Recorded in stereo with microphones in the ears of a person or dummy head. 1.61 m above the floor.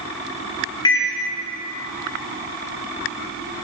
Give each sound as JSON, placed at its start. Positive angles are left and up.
{"t": 0.8, "sound": "a microwave", "side_deg": 20, "distance_m": 0.8}